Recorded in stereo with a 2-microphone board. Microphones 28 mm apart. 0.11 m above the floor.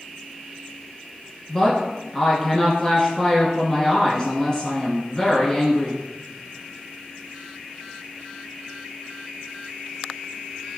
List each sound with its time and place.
1.5 s a woman speaking: 20° left (ahead or behind), 1.1 m